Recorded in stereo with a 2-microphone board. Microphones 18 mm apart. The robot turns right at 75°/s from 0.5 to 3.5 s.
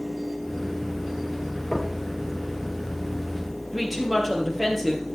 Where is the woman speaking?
15° right (ahead or behind), 3.5 m.